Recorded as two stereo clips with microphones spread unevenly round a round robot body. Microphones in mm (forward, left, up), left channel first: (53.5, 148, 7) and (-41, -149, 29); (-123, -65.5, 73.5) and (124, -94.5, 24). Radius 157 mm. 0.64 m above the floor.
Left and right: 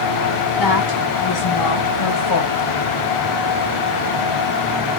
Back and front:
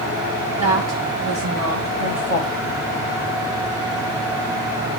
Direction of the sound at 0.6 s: 50° left.